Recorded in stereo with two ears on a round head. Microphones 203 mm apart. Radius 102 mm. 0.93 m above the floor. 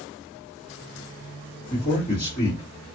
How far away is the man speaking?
About 2 m.